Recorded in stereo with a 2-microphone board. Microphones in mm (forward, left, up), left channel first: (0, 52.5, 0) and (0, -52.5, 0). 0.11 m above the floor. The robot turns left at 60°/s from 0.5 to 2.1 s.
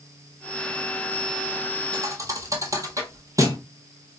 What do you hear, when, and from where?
1.9 s a thud: 40° right (ahead or behind), 0.9 m; by 3.6 s 30° right (ahead or behind), 0.9 m